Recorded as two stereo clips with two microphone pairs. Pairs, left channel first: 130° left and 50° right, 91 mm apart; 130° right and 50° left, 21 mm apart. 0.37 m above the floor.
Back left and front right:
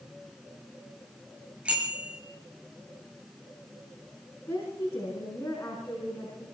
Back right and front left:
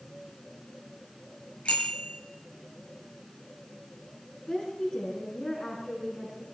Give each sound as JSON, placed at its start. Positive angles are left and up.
{"t": 1.6, "sound": "a bicycle bell", "azimuth_deg": -130, "distance_m": 4.5}
{"t": 4.5, "sound": "a woman speaking", "azimuth_deg": -170, "distance_m": 4.5}